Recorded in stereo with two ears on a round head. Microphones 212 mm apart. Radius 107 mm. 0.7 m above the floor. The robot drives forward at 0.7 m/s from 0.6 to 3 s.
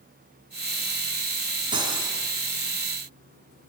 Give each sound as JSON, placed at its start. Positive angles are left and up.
{"t": 1.7, "sound": "cutlery clinking", "side_deg": -20, "distance_m": 5.0}